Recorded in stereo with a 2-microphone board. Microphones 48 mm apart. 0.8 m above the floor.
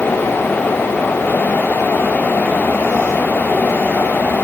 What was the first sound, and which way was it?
Only background noise.